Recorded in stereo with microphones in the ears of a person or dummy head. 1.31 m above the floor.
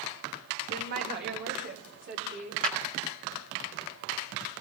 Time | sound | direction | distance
0.7 | a woman speaking | 50° right (ahead or behind) | 1.5 m
2.6 | a clap | 40° right (ahead or behind) | 2 m